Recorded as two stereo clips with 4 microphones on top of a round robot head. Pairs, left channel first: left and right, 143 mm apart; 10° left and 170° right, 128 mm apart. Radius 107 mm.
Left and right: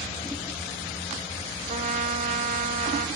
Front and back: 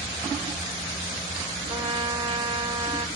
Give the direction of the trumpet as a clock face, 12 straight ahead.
4 o'clock.